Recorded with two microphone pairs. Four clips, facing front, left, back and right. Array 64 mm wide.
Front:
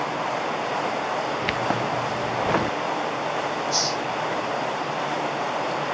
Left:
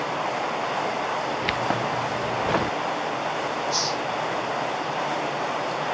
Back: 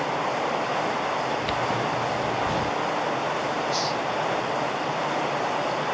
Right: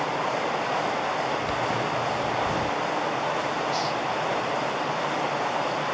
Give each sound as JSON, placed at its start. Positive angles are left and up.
{"t": 1.4, "sound": "keys jangling", "azimuth_deg": 45}
{"t": 3.7, "sound": "a hiss", "azimuth_deg": 25}